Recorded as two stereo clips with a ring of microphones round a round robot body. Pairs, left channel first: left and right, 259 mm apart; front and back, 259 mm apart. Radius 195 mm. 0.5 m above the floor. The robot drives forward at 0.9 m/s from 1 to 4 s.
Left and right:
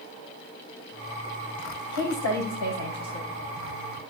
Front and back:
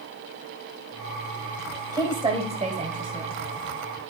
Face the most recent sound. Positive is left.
turn(degrees=130)